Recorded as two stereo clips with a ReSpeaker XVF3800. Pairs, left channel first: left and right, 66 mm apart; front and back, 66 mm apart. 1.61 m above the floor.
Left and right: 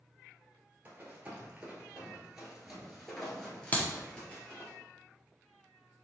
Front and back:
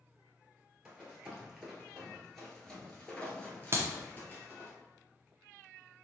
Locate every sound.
0.8 s running footsteps: 120° right, 1.7 m; by 4.7 s 40° left, 1.9 m
3.7 s a clap: 150° left, 0.7 m